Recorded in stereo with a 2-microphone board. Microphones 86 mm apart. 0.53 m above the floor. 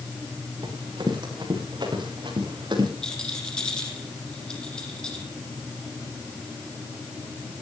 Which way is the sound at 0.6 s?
65° right (ahead or behind).